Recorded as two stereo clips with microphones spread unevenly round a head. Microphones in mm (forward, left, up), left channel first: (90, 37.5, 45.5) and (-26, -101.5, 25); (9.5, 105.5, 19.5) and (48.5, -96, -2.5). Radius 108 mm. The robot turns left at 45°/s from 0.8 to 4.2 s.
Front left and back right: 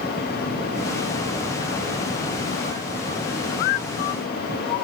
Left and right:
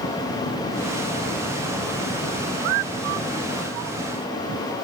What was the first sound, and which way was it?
Only background noise.